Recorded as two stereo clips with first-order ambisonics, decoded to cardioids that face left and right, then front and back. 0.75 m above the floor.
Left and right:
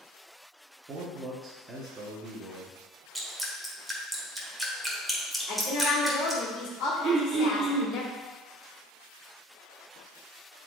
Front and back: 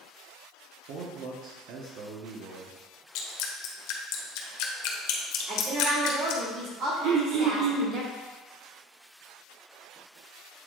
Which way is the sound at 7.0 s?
155° right.